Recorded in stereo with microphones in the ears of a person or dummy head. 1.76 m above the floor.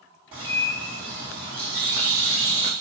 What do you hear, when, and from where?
0.3 s a bird: 15° right (ahead or behind), 1.7 m